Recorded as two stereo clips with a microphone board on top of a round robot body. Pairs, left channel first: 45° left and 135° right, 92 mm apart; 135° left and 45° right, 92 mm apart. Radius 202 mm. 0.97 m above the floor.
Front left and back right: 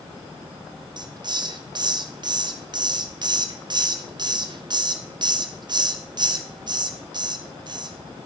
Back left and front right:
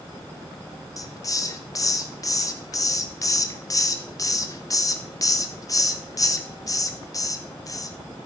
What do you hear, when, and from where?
1.0 s a hiss: 175° right, 1.3 m